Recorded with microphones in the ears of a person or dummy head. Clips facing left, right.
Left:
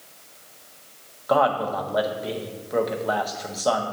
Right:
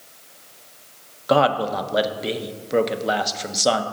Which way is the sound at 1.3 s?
35° right (ahead or behind).